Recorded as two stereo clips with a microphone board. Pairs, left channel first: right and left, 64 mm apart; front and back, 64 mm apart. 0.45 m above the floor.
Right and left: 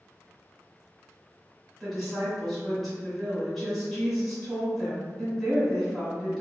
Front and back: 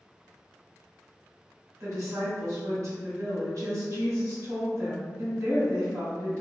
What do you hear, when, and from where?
1.8 s a woman speaking: 175° right, 1.5 m